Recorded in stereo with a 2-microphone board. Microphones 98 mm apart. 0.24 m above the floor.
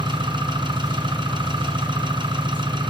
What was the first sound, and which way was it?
An engine running, 55° right (ahead or behind).